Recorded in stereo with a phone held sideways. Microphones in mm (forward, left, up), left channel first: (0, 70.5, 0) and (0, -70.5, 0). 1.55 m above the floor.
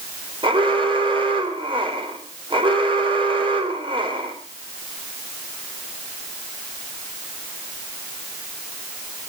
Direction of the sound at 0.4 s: 40° right (ahead or behind).